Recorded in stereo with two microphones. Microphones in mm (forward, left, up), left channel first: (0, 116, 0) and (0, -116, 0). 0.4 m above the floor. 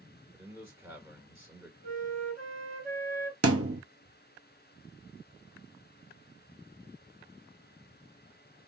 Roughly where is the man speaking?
Centre.